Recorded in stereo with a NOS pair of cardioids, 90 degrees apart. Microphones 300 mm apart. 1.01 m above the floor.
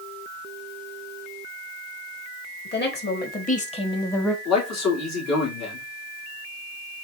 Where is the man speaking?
60° left, 2.5 m.